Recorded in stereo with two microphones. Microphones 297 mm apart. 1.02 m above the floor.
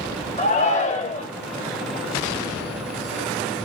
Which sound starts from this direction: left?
A shout, at 0.4 s.